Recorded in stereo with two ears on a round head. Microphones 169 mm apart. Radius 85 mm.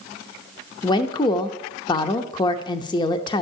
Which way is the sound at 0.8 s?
25° left (ahead or behind).